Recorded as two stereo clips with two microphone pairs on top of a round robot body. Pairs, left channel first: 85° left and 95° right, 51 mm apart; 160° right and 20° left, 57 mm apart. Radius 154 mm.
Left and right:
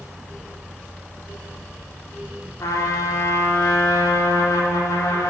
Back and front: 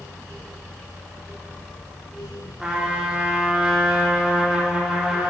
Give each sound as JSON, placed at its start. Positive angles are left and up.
{"t": 2.6, "sound": "a trumpet", "azimuth_deg": 100, "distance_m": 3.0}